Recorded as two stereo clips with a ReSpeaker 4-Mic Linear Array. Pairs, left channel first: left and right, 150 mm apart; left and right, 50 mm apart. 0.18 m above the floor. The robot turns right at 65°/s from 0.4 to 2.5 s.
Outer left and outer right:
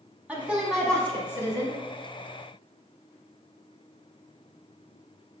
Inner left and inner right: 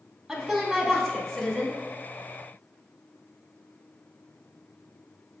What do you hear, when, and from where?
0.3 s a woman speaking: 10° right (ahead or behind), 1.2 m; by 1.8 s 25° left (ahead or behind), 1.2 m